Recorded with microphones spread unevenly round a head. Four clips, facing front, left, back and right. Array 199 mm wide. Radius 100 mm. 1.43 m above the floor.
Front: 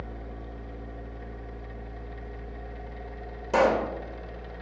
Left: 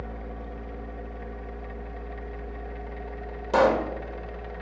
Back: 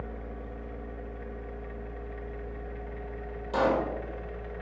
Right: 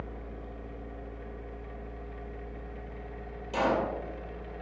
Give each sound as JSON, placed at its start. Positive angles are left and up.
{"t": 0.0, "sound": "a machine running", "azimuth_deg": 85, "distance_m": 2.0}
{"t": 3.5, "sound": "a pop", "azimuth_deg": 55, "distance_m": 3.0}